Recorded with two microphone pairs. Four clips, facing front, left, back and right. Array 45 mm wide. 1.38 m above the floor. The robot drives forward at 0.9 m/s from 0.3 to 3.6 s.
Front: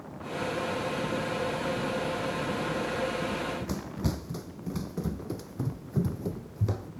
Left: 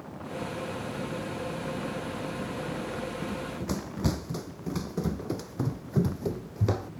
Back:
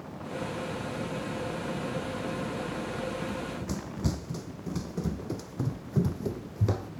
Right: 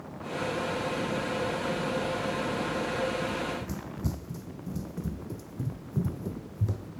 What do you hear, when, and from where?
3.2 s running footsteps: 70° left; by 6.9 s 110° left